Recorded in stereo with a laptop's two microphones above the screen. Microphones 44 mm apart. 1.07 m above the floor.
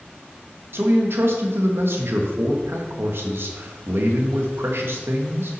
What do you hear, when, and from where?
0.7 s a man speaking: 70° right (ahead or behind), 1.4 m